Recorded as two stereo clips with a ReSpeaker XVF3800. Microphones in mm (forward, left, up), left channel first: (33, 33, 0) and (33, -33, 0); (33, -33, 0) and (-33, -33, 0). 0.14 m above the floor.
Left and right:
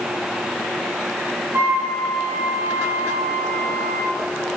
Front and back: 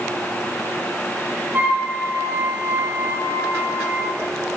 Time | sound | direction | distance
1.5 | a flute | 130° right | 3.5 m